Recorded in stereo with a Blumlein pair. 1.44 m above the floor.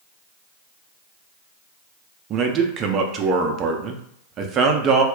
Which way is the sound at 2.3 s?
30° right.